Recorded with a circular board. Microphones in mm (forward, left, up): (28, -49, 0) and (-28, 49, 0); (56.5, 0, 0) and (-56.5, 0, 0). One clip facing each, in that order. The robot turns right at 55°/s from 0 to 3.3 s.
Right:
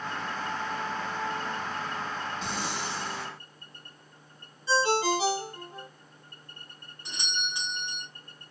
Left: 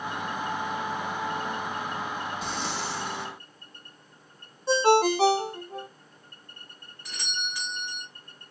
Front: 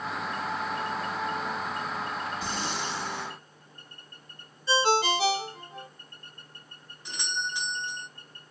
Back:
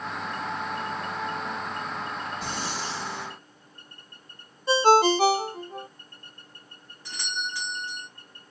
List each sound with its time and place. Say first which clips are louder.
2.4 s breathing: left 1 dB, even; 155° right, 2.5 m; by 3.3 s 105° right, 2.5 m
4.7 s a ringtone: left 5 dB, back 6 dB; 145° left, 0.6 m
7.0 s a doorbell: right 1 dB, even; 40° right, 1.4 m